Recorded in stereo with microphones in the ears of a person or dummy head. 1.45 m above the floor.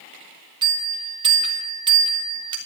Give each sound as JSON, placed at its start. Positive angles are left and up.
{"t": 0.6, "sound": "a bell", "side_deg": -20, "distance_m": 2.5}